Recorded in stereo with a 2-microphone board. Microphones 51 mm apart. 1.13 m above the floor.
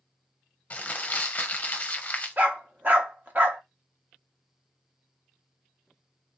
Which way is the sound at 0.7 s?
30° left (ahead or behind).